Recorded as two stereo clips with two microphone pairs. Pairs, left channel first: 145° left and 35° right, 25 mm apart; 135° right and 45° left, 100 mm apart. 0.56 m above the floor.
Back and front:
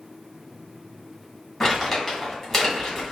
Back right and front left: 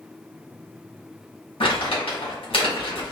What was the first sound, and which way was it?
Crumpling, 135° right.